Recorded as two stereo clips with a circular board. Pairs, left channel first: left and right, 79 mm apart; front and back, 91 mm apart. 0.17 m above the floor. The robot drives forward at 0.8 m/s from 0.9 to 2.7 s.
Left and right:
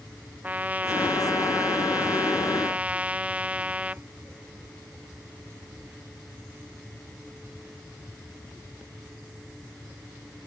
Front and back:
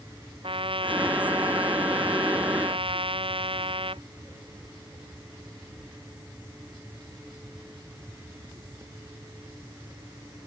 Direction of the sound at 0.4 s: 160° right.